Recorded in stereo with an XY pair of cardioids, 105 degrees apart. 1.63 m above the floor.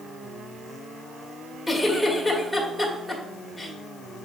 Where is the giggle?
5° left, 1.9 m.